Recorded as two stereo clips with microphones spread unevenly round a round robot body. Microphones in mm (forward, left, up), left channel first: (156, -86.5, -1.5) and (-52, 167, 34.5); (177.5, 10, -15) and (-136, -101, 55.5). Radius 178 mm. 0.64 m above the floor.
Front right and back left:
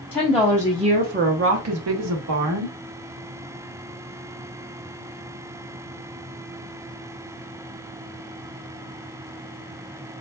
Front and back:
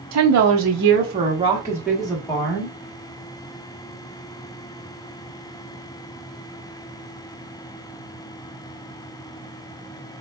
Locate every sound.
0.1 s a woman speaking: 125° right, 0.8 m; by 2.8 s 90° left, 1.3 m